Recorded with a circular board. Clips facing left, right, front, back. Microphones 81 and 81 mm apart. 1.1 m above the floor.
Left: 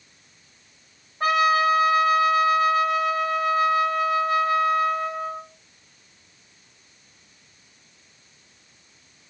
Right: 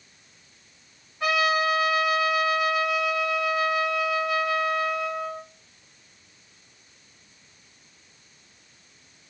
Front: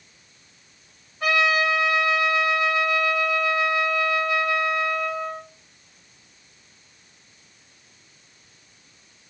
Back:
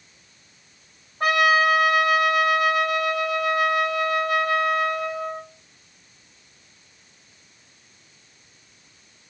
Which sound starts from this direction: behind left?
A trumpet, at 1.2 s.